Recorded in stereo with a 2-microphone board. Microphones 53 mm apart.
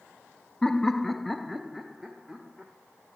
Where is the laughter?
10° left (ahead or behind), 0.6 m; by 2.7 s 5° right (ahead or behind), 1.3 m.